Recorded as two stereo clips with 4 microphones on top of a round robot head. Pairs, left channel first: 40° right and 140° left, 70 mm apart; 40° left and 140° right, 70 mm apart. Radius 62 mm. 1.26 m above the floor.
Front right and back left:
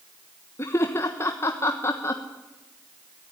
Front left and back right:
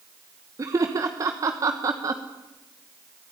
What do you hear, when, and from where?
0.6 s laughter: 95° right, 1.2 m